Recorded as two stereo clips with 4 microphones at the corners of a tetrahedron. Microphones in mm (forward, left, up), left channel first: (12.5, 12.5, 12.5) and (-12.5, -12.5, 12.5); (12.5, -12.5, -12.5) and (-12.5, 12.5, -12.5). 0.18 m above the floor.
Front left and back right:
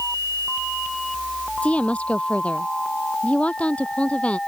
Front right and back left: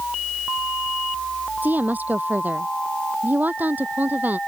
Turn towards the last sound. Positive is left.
turn(degrees=100)